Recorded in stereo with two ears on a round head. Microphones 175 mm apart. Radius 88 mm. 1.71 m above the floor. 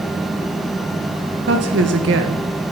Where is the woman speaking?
60° right (ahead or behind), 2.0 m.